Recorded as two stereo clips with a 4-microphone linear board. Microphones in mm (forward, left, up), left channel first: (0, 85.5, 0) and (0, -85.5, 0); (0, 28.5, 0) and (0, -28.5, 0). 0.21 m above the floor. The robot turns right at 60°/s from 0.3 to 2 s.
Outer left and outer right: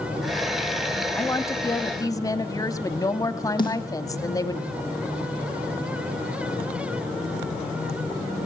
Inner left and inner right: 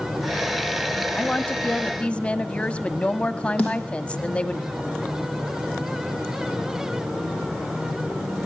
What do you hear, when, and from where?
1.1 s a woman speaking: 15° left (ahead or behind), 1.2 m; by 4.6 s 20° left (ahead or behind), 1.2 m
3.6 s a snare drum: 25° left (ahead or behind), 6.5 m